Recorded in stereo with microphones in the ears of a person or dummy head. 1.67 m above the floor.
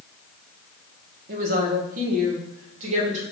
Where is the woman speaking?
50° right (ahead or behind), 1.1 m; by 3.2 s 35° right (ahead or behind), 2.0 m.